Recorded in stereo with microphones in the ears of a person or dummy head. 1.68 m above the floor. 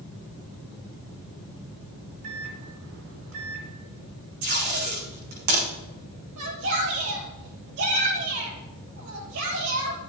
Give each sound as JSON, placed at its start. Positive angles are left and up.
{"t": 2.2, "sound": "a microwave", "side_deg": -80, "distance_m": 3.0}
{"t": 4.4, "sound": "tape being pulled", "side_deg": -45, "distance_m": 6.0}
{"t": 6.4, "sound": "a shout", "side_deg": -70, "distance_m": 5.0}